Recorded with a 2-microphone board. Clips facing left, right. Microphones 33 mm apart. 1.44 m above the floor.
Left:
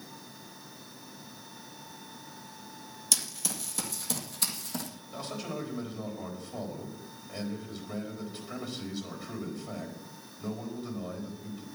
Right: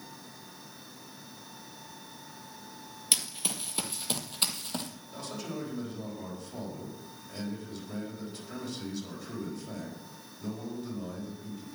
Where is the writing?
No writing in this recording.